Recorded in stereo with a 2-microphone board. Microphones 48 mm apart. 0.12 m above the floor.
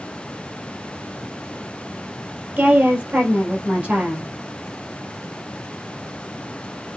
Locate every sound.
2.6 s a woman speaking: 30° right (ahead or behind), 3 m